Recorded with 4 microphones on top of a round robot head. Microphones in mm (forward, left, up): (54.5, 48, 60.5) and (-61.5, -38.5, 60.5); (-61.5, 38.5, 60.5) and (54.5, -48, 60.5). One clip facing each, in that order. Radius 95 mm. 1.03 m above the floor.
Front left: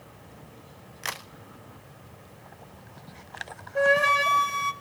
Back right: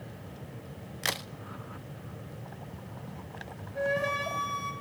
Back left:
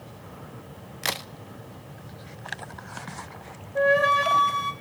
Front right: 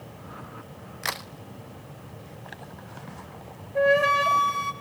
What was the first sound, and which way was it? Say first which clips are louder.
A crack: back right 2 dB, back left 2 dB; 170° right.